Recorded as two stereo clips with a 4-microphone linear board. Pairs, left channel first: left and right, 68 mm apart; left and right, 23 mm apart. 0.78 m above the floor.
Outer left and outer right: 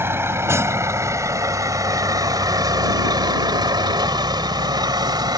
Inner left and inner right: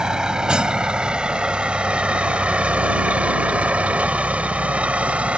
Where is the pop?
No pop in this recording.